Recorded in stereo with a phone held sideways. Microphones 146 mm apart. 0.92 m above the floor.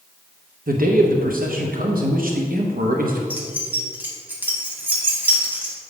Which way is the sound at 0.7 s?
70° right (ahead or behind).